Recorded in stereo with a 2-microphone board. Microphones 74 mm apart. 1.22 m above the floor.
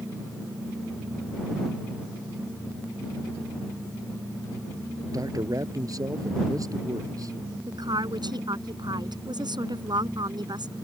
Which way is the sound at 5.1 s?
50° right (ahead or behind).